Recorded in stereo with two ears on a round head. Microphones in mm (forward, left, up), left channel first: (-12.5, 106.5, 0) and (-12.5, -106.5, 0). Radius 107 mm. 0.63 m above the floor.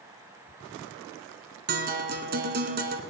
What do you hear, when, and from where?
1.7 s a guitar: 45° right (ahead or behind), 1.2 m